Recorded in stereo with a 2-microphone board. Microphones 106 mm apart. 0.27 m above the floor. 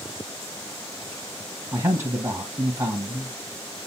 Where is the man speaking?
25° right (ahead or behind), 1.2 m.